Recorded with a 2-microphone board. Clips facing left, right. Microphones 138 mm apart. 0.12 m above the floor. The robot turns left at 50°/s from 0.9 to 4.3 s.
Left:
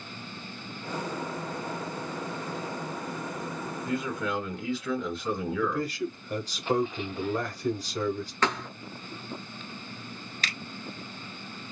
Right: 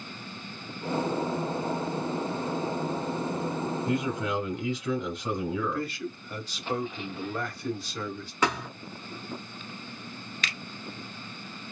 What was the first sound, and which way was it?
A man speaking, 20° right (ahead or behind).